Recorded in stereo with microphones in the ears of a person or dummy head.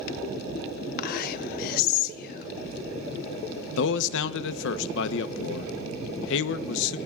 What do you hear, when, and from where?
1.0 s whispering: 55° left (ahead or behind), 1.1 m
3.8 s a man speaking: 80° left, 0.9 m